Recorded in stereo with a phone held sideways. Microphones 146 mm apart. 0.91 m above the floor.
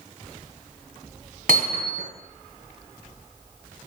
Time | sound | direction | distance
1.5 | hammering | 70° right (ahead or behind) | 1.8 m